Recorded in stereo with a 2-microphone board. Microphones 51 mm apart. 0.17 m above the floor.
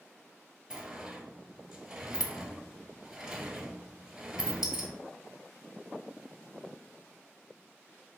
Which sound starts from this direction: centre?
A sliding door, at 0.7 s.